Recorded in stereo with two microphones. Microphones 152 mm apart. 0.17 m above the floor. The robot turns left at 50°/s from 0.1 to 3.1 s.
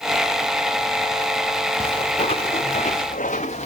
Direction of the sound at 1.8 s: 30° left (ahead or behind).